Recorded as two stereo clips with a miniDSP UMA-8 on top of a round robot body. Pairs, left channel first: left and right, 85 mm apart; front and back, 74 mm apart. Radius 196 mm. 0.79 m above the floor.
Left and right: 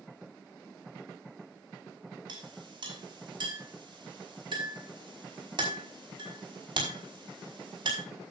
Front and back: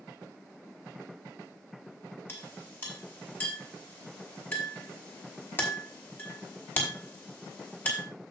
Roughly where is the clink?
Ahead right.